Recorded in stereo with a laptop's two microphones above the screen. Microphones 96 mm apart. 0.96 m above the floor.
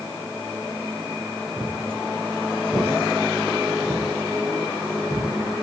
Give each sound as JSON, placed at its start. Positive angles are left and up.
{"t": 1.6, "sound": "footsteps", "side_deg": -15, "distance_m": 1.3}